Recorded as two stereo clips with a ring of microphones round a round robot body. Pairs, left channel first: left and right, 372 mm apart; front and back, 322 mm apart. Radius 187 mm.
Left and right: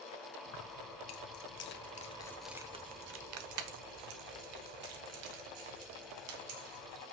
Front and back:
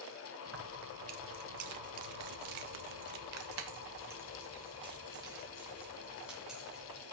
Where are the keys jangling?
130° left, 1.7 m; by 7.0 s 90° right, 3 m.